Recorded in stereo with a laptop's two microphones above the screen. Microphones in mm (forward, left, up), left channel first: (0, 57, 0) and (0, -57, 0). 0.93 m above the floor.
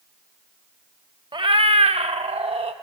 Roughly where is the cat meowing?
Right.